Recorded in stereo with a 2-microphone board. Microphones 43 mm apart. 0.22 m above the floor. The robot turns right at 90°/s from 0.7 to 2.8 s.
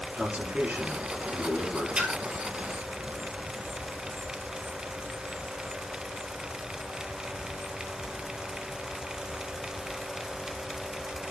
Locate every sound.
0.1 s a man speaking: 40° right, 4.5 m; by 1.9 s 65° left, 4.5 m
1.9 s a splash: 20° right (ahead or behind), 1.2 m; by 2.1 s 35° right (ahead or behind), 1.2 m